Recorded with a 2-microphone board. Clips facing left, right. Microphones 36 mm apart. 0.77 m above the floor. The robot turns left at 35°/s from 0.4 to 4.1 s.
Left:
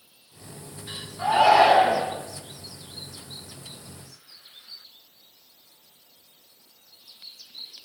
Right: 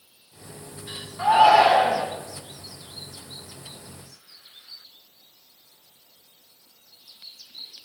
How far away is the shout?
About 6 m.